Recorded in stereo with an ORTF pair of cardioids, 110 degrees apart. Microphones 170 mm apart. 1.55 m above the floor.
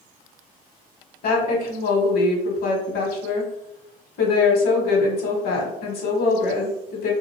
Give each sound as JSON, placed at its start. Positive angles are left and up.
{"t": 1.2, "sound": "a woman speaking", "azimuth_deg": 65, "distance_m": 1.2}